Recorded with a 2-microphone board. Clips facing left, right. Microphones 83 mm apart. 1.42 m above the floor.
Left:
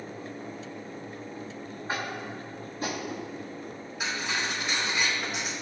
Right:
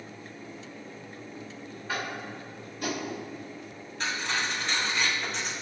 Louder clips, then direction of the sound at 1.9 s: Even; 35° left (ahead or behind).